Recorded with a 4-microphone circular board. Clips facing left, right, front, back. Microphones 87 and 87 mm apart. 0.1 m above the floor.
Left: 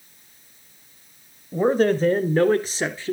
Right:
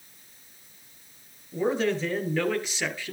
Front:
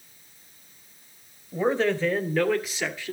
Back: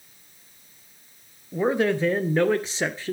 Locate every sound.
1.5 s a man speaking: 105° left, 1.7 m; by 3.1 s 140° left, 1.7 m